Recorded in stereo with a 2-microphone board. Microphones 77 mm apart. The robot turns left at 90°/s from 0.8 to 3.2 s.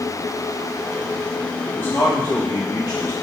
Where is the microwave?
I don't hear a microwave.